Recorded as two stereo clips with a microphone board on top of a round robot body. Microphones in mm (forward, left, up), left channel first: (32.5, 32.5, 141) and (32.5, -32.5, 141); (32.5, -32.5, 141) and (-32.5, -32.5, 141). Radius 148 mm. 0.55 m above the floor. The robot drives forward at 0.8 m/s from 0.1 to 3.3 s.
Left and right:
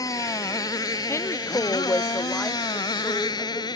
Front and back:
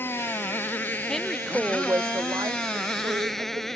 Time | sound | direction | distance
0.0 | a motorcycle | 60° left | ?
1.1 | a woman speaking | 75° left | ?